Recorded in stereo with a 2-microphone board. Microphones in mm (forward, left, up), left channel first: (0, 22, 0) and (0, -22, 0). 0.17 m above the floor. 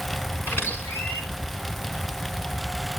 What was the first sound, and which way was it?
A squeak, 85° left.